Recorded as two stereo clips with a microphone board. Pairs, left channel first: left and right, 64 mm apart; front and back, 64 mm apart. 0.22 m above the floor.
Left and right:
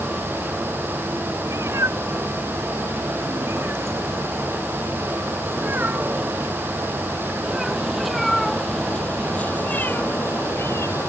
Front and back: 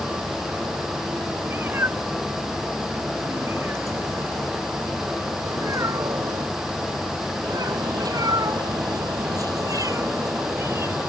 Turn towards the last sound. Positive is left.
turn(degrees=130)